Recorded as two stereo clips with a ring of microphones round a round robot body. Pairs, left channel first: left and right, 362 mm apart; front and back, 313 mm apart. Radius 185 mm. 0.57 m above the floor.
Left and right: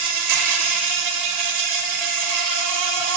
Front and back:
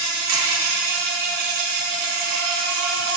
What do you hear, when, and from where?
0.0 s an insect: 130° right, 1.1 m